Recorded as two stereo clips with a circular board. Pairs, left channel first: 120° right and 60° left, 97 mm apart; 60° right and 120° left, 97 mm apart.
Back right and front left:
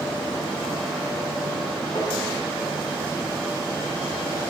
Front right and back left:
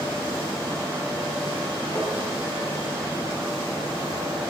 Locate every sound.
1.9 s tapping: 110° right, 2 m